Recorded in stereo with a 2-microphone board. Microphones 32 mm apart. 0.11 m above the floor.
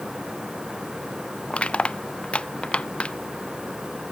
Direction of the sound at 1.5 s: 35° left (ahead or behind).